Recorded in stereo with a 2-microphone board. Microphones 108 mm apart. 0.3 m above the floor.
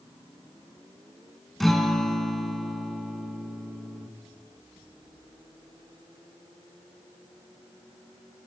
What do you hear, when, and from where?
1.6 s a guitar: 5° left (ahead or behind), 0.6 m